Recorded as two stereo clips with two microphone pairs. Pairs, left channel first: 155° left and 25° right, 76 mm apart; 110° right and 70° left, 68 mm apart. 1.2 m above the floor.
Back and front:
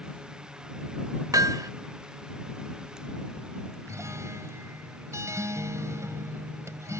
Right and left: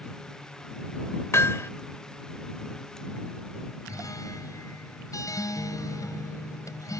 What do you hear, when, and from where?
1.3 s hammering: 60° right
3.9 s a guitar: 75° right